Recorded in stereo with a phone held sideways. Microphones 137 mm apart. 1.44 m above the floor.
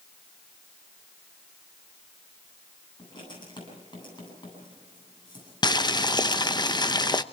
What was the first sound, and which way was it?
Writing, 30° left (ahead or behind).